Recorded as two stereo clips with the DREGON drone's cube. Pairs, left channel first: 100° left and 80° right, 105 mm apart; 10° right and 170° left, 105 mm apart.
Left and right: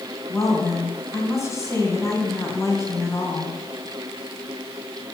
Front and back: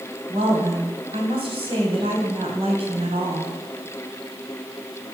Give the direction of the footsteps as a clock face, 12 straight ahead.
No footsteps in this recording.